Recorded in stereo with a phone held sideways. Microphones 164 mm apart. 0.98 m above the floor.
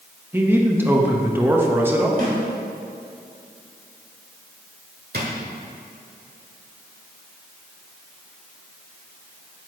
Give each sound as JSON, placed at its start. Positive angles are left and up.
{"t": 0.3, "sound": "a man speaking", "side_deg": -15, "distance_m": 1.1}
{"t": 2.2, "sound": "a snare drum", "side_deg": -60, "distance_m": 2.5}
{"t": 5.1, "sound": "a drawer", "side_deg": -70, "distance_m": 1.5}